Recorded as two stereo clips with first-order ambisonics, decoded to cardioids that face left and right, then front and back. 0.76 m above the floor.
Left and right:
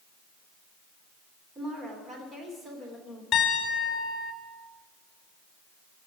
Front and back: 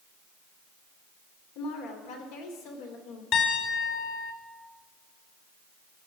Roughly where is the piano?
Ahead left.